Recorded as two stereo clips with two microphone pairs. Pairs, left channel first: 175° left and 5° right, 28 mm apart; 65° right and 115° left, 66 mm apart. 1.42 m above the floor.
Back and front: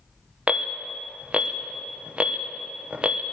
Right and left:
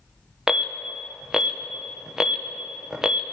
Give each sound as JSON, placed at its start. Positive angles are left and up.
{"t": 0.5, "sound": "an alarm", "azimuth_deg": 35, "distance_m": 0.9}